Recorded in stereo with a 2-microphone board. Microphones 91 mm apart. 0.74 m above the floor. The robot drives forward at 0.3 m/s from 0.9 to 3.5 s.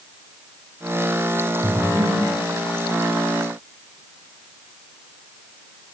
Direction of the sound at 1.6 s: 40° left (ahead or behind).